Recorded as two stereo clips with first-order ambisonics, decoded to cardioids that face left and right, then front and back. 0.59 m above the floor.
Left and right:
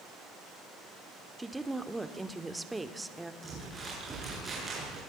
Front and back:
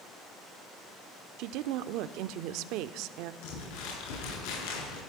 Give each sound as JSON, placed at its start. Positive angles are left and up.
{"t": 1.4, "sound": "a woman speaking", "azimuth_deg": -175, "distance_m": 1.2}
{"t": 3.4, "sound": "crumpling", "azimuth_deg": -10, "distance_m": 9.5}